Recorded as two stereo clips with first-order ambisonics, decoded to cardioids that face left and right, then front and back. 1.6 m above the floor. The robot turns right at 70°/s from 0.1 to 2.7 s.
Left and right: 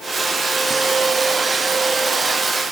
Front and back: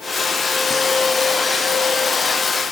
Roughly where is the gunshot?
No gunshot in this recording.